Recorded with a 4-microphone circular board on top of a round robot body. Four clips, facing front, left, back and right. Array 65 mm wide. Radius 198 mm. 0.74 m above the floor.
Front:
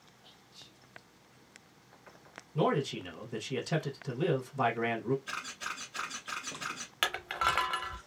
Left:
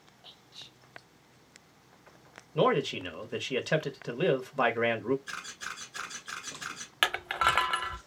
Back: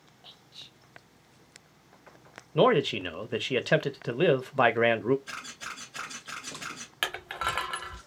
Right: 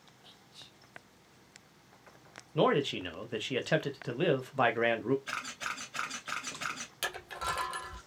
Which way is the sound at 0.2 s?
150° left.